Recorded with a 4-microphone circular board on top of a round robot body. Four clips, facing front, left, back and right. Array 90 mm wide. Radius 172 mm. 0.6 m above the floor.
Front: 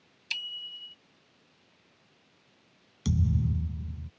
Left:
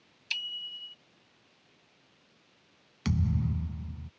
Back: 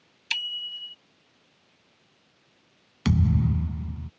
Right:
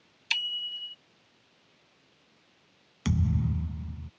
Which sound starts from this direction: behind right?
A bicycle bell, at 0.3 s.